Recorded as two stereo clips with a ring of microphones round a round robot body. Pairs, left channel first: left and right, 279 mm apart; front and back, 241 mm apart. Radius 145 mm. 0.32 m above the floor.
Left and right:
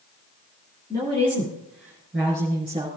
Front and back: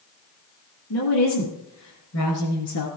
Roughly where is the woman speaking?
Ahead.